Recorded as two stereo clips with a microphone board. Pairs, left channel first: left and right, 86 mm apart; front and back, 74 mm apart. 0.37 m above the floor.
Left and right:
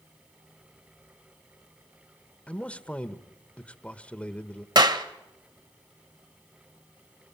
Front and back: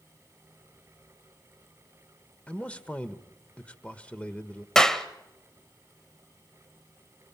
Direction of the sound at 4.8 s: 80° right.